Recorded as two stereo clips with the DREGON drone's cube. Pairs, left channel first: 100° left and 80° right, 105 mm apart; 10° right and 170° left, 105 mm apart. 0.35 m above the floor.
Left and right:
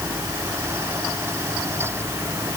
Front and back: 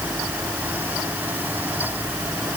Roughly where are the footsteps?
I don't hear footsteps.